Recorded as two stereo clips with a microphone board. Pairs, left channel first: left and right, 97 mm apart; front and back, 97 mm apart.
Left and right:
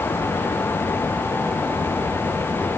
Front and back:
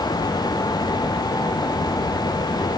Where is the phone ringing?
No phone ringing in this recording.